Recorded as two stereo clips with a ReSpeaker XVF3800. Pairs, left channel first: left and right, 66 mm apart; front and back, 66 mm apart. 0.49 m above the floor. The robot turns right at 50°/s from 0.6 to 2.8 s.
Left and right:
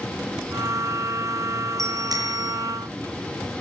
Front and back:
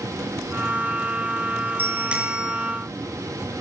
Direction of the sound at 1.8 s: 125° right.